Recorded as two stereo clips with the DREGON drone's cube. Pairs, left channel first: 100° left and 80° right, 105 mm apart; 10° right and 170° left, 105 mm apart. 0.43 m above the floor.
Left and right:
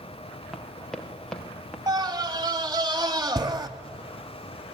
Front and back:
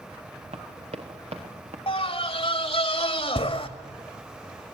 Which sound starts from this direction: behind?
Running footsteps, at 0.5 s.